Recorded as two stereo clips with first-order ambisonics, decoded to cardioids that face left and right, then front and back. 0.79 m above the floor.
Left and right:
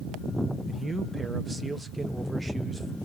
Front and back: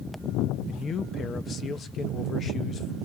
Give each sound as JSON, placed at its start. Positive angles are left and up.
{"t": 0.7, "sound": "a man speaking", "azimuth_deg": -20, "distance_m": 0.7}